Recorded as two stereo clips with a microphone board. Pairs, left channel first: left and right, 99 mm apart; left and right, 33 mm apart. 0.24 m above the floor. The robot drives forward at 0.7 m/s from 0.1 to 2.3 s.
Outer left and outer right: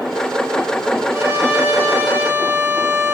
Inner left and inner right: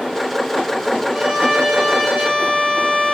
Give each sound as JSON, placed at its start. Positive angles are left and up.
{"t": 1.1, "sound": "a violin", "side_deg": -25, "distance_m": 6.0}